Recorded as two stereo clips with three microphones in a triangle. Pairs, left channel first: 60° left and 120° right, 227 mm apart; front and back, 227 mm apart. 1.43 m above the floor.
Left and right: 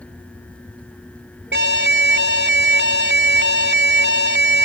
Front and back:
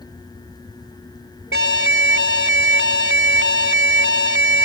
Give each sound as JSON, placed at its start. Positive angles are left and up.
{"t": 1.5, "sound": "an alarm", "azimuth_deg": -155}